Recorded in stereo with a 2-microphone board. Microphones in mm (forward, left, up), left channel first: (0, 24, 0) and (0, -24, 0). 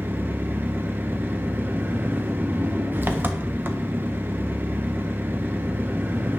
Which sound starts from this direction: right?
An engine running, at 0.0 s.